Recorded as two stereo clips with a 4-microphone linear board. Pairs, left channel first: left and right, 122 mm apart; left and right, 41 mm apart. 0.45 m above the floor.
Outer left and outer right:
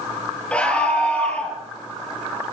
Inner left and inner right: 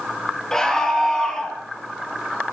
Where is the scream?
10° left (ahead or behind), 8.5 m.